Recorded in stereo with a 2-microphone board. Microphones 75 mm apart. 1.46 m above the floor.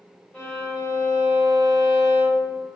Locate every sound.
0.3 s a violin: 20° left (ahead or behind), 1.6 m